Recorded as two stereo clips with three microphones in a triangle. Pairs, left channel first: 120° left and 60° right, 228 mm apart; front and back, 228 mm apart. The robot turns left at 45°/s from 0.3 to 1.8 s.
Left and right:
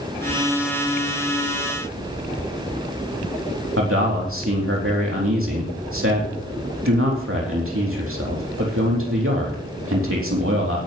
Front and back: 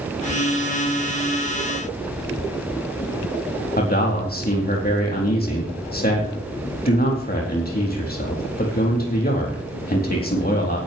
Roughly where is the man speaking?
Ahead right.